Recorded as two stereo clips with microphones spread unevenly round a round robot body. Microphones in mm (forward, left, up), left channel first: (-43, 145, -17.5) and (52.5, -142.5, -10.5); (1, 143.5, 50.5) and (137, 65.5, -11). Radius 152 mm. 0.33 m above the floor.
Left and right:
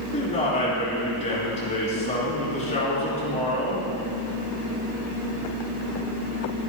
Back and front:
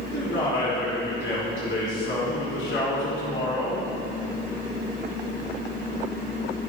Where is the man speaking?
175° left, 4.5 m.